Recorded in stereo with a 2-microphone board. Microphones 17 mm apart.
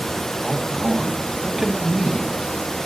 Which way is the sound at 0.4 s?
30° right (ahead or behind).